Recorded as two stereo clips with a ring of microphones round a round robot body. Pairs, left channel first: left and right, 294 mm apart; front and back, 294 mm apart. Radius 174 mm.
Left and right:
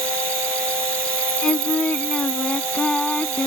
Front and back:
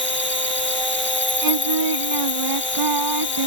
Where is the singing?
175° left.